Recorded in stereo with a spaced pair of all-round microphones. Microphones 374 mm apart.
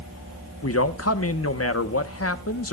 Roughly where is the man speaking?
Left.